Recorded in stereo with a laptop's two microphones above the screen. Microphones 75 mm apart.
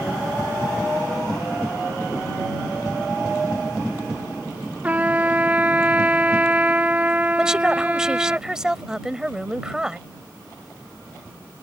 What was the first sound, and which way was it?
A trumpet, 20° right (ahead or behind).